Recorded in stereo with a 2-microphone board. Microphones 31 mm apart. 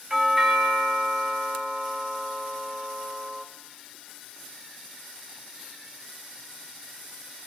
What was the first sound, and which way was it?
A doorbell, 10° right (ahead or behind).